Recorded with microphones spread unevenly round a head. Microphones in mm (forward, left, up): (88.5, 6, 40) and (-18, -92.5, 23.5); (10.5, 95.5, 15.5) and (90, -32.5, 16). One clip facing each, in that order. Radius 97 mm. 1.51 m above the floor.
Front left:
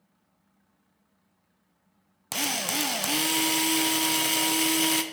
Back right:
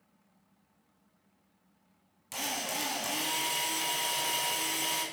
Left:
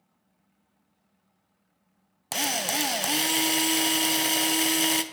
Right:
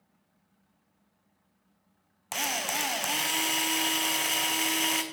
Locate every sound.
2.3 s a drill: 65° left, 0.7 m